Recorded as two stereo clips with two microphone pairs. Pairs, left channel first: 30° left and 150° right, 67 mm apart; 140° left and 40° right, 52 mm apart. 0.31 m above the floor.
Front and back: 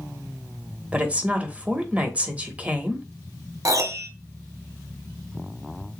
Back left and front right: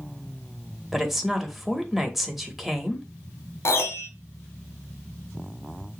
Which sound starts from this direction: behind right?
A woman speaking, at 0.9 s.